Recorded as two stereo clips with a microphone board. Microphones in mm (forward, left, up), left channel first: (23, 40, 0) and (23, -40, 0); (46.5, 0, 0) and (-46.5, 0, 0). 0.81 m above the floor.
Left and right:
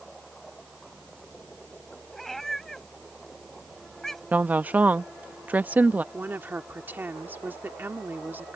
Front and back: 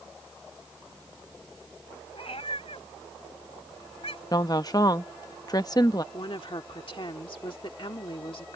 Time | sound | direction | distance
2.1 | a cat meowing | 5° left | ?
4.3 | a woman speaking | 25° right | ?
6.1 | a woman speaking | 25° right | ?